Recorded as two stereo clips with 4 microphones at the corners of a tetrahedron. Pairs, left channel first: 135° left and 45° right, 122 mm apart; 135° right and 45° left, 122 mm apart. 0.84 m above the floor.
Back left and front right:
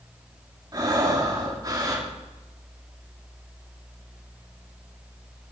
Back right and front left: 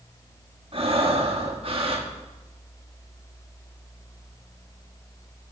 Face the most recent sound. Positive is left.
turn(degrees=10)